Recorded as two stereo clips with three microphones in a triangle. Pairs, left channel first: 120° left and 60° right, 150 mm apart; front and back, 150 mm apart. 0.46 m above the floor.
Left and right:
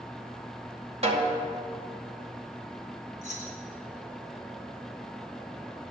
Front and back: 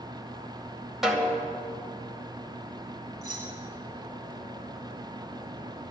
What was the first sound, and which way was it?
A snare drum, 95° right.